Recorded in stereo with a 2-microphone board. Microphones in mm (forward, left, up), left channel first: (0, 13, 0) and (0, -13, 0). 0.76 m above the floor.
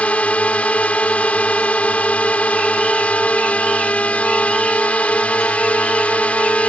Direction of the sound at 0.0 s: 60° left (ahead or behind).